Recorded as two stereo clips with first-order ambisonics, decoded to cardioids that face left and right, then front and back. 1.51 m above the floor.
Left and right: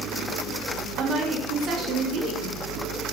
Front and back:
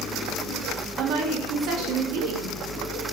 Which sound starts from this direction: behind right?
A woman speaking, at 1.0 s.